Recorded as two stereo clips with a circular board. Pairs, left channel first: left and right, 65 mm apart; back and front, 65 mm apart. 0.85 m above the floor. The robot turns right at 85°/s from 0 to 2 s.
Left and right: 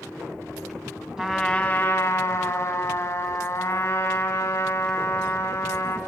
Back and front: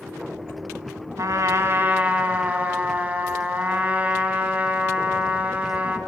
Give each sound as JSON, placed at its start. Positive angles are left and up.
{"t": 1.2, "sound": "a trumpet", "azimuth_deg": -20, "distance_m": 1.5}